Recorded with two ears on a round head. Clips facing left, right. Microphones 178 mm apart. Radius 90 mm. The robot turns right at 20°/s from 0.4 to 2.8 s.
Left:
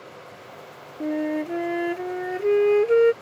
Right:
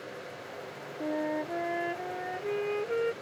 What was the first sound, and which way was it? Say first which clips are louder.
A flute: left 7 dB; 30° left.